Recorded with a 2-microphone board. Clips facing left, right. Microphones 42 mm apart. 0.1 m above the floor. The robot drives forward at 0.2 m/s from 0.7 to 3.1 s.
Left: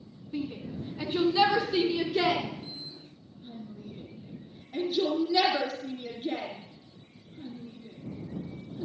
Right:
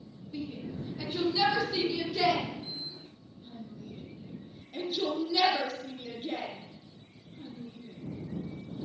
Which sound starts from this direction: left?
A shout, at 0.3 s.